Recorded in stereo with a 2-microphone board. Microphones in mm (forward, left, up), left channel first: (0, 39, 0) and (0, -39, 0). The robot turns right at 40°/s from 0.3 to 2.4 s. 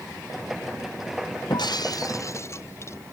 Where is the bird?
No bird in this recording.